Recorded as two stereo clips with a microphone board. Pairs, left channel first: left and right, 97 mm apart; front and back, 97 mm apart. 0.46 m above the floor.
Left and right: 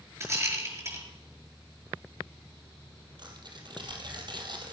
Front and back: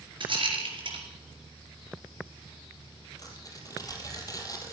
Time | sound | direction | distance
0.2 | a rattle | 150° right | 4.5 m
3.2 | tearing paper | 50° right | 2.5 m